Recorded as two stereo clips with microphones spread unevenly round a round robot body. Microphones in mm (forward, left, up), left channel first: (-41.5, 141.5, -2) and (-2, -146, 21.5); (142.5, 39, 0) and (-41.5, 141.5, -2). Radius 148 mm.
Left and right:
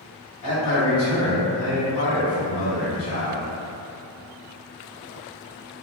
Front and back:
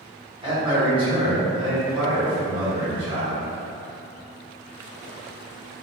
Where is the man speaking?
85° left, 1.8 m.